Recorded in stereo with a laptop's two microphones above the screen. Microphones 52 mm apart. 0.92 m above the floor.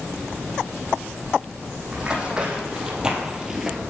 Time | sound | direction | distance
1.9 | running footsteps | 20° right (ahead or behind) | 3 m